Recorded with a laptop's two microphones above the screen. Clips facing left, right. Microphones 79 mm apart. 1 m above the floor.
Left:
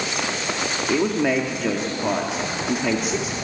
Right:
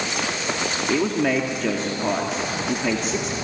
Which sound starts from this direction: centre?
A man speaking, at 0.9 s.